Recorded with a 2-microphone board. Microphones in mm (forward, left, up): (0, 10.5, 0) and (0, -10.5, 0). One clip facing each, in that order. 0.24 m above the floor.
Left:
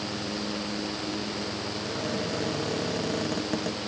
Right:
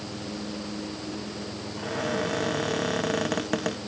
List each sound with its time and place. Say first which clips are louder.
1.8 s a cupboard door: right 5 dB; 40° right (ahead or behind)